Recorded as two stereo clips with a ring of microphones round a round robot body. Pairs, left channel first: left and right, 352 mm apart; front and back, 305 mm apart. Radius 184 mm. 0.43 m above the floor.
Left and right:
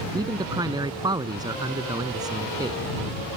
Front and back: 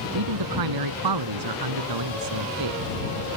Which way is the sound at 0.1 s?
170° right.